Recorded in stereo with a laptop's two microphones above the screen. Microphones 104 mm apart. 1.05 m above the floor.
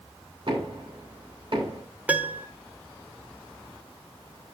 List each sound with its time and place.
0.5 s knocking: 50° right (ahead or behind), 3.5 m
2.1 s a piano: 15° right (ahead or behind), 1.1 m